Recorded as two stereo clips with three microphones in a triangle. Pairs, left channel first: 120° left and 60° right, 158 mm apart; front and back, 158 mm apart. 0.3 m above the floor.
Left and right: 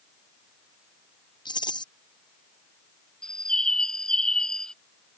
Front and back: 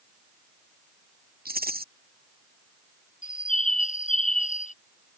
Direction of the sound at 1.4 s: Straight behind.